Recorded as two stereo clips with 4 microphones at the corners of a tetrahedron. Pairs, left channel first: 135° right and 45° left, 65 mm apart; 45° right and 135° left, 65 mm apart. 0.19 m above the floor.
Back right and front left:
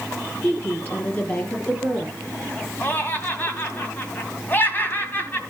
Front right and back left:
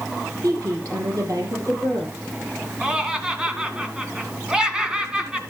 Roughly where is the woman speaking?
Behind.